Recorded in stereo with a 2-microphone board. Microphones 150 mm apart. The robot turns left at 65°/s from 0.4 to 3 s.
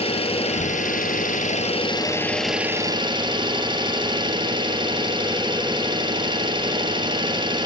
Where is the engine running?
135° left, 2.5 m; by 7.7 s 35° right, 2.5 m.